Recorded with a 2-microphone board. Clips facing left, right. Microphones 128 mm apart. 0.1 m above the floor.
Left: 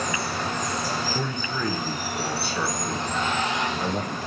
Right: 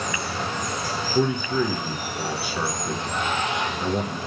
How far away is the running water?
About 3.5 m.